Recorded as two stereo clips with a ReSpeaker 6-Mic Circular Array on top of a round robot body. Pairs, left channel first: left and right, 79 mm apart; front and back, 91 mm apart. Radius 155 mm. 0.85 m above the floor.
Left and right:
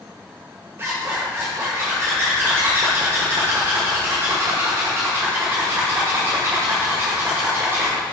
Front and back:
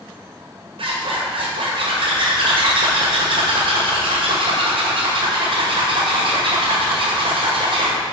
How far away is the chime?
I don't hear a chime.